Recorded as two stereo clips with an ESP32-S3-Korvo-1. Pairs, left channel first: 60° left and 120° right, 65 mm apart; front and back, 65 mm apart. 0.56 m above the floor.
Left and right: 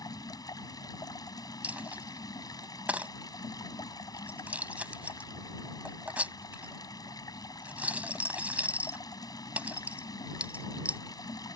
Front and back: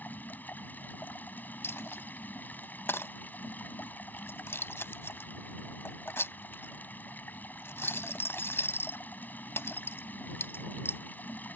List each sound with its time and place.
0.0 s running water: 60° left
1.6 s a dropped coin: 55° right